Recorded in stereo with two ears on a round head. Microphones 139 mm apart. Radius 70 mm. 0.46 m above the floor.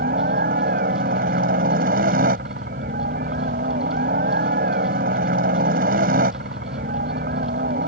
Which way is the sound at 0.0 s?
60° right (ahead or behind).